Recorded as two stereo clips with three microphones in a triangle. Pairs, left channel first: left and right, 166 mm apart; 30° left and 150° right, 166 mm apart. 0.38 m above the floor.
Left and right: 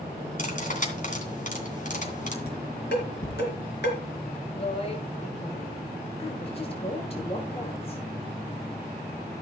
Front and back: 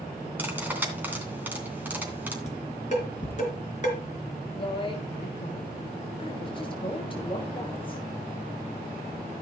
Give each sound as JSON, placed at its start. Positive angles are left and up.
{"t": 0.4, "sound": "cutlery clinking", "azimuth_deg": 130, "distance_m": 2.5}
{"t": 2.5, "sound": "dishes clattering", "azimuth_deg": 75, "distance_m": 3.5}
{"t": 4.5, "sound": "a woman speaking", "azimuth_deg": 65, "distance_m": 1.5}